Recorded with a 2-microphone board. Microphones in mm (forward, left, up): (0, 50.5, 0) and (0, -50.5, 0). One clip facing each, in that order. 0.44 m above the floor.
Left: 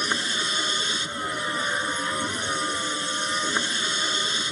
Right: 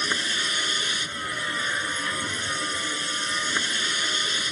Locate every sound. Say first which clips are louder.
0.0 s a vehicle: left 1 dB; 25° left (ahead or behind)